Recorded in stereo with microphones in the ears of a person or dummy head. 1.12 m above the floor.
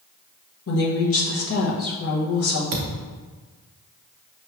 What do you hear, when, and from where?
0.7 s a woman speaking: 60° left (ahead or behind), 1.1 m
2.7 s a thud: 50° right (ahead or behind), 0.7 m